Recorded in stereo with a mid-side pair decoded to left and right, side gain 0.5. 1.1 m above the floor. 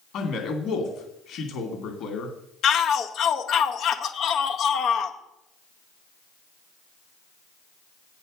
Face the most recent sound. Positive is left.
turn(degrees=60)